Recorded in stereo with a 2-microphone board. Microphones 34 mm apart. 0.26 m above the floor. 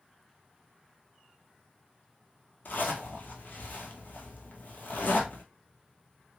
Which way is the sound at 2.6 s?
65° left (ahead or behind).